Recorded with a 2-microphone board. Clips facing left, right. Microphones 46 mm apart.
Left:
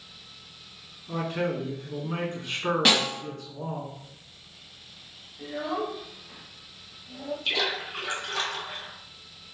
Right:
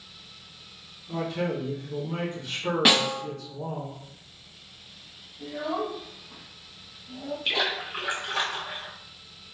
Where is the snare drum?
10° right (ahead or behind), 1.1 m.